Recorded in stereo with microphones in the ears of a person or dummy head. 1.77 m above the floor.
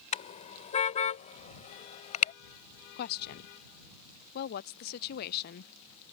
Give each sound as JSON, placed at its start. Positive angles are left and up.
{"t": 0.1, "sound": "a car horn", "side_deg": 40}
{"t": 3.0, "sound": "a woman speaking", "side_deg": 55}